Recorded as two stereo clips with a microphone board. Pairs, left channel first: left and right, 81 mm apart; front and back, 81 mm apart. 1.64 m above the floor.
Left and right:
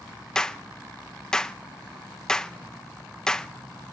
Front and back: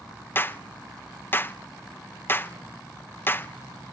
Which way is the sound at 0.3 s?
15° left.